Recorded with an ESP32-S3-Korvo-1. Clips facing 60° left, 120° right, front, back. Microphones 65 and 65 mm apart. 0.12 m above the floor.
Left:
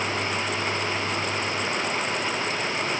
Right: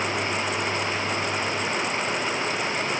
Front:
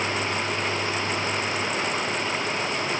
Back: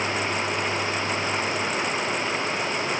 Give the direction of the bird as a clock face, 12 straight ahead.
No bird in this recording.